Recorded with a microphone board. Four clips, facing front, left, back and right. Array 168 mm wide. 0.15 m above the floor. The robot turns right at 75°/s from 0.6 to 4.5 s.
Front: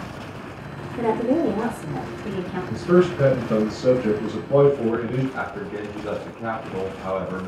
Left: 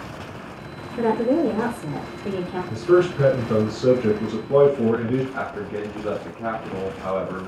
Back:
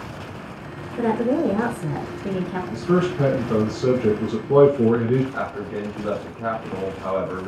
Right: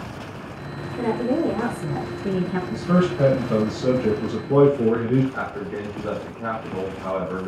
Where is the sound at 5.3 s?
160° left, 1.5 m.